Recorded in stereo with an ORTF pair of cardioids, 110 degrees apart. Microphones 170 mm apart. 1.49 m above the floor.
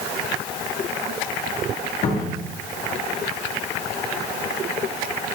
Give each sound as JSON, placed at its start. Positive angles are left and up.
{"t": 2.0, "sound": "a cupboard door", "azimuth_deg": 45, "distance_m": 2.0}